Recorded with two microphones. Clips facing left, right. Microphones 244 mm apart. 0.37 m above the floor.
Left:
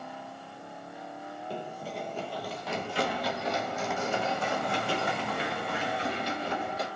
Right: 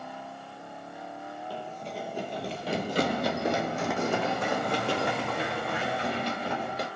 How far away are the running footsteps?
About 0.6 m.